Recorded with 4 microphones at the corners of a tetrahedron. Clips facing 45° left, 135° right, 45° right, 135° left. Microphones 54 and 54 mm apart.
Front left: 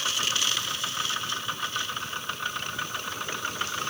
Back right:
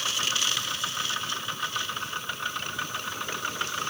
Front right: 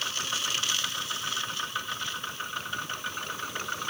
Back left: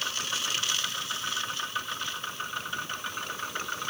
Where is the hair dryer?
I don't hear a hair dryer.